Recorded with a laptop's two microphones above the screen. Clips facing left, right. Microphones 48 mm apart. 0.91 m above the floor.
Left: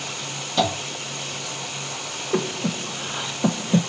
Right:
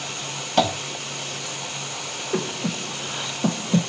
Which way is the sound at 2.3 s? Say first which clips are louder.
Left 2 dB; 10° left (ahead or behind).